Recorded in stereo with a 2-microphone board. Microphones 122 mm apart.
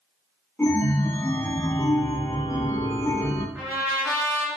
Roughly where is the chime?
Centre.